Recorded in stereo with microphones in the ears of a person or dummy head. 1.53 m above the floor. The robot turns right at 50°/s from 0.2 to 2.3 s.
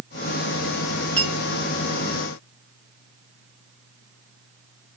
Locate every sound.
1.2 s a clink: 15° right (ahead or behind), 2.5 m; by 1.3 s 10° right (ahead or behind), 2.5 m